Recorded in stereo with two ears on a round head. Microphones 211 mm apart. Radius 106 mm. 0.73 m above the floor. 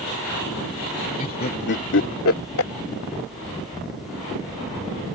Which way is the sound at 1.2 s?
35° left (ahead or behind).